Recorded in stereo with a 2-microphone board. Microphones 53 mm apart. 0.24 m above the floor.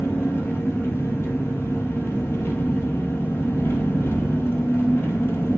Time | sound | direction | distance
0.0 | an engine running | 55° left (ahead or behind) | 1.9 m